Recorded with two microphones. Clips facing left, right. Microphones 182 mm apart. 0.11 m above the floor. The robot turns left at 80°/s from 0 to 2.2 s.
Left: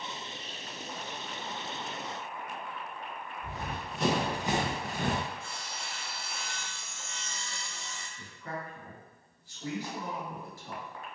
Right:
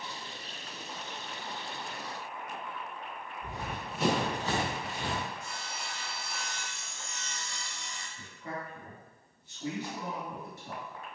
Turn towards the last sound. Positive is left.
turn(degrees=-25)  # may be behind; listen again after turning